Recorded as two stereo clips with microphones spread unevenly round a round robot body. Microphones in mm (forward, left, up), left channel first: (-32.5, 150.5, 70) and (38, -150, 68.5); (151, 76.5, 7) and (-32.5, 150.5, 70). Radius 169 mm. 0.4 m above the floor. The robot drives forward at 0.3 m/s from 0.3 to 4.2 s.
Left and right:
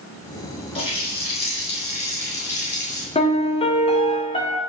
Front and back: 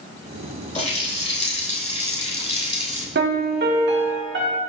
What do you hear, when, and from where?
0.8 s a running tap: 30° left, 4.5 m; by 3.0 s 35° left, 3.5 m
3.1 s a piano: 160° left, 1.6 m; by 4.6 s 165° left, 1.7 m